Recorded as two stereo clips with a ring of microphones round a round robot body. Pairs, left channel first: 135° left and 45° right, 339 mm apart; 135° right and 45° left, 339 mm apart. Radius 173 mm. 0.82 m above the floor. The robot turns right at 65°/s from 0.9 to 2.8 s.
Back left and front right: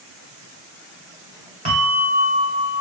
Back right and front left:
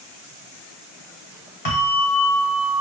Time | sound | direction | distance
1.6 | a bell | 100° right | 0.7 m